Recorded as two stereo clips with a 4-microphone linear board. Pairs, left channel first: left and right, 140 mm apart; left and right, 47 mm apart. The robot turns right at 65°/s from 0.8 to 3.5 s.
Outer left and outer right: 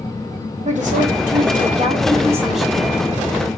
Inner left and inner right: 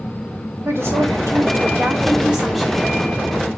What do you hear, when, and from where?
0.7 s a woman speaking: 120° right, 3 m; by 3.5 s 55° left, 3 m